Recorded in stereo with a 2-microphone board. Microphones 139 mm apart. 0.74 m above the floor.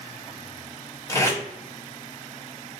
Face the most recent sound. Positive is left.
turn(degrees=25)  # may be behind; listen again after turning